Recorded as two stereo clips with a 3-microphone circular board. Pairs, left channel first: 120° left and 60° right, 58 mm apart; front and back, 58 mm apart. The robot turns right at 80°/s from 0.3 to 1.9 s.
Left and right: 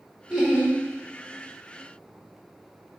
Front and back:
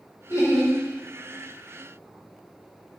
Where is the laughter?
15° left, 2 m; by 0.7 s 50° left, 2 m.